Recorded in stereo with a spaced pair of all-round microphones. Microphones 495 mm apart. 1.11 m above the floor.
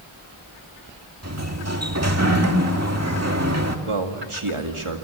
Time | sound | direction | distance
1.2 | a sliding door | 30° right (ahead or behind) | 2.5 m
3.9 | a man speaking | 80° right | 2 m